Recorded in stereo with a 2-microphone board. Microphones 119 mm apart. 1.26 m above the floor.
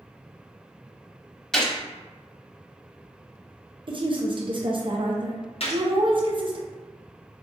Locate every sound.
1.5 s a gunshot: 5° left (ahead or behind), 0.9 m
3.9 s a woman speaking: 45° right (ahead or behind), 0.6 m
5.6 s a gunshot: 55° left (ahead or behind), 0.7 m